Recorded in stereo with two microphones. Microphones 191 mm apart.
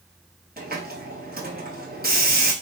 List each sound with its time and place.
0.6 s a hiss: 55° right (ahead or behind), 1.1 m